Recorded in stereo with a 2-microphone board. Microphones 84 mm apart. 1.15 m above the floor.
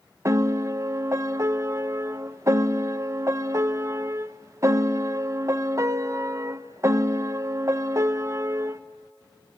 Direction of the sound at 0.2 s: 35° right (ahead or behind).